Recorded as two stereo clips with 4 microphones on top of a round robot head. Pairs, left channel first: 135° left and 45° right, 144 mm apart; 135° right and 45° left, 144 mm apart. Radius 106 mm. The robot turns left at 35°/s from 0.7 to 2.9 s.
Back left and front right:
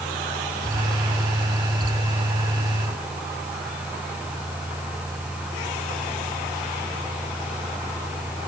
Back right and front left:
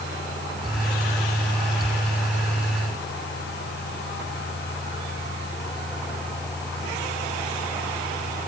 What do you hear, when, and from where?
Only background noise.